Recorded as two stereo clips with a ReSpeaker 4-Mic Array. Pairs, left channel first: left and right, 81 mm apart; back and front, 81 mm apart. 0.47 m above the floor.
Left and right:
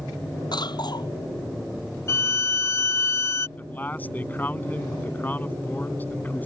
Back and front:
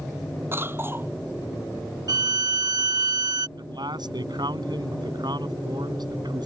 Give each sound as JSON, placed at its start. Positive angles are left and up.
{"t": 0.5, "sound": "a cough", "azimuth_deg": 60}
{"t": 2.1, "sound": "a violin", "azimuth_deg": 35}
{"t": 3.6, "sound": "a man speaking", "azimuth_deg": 20}